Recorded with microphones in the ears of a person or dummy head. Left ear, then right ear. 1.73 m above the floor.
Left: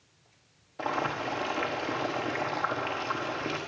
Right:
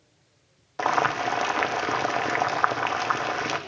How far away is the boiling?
About 1.1 m.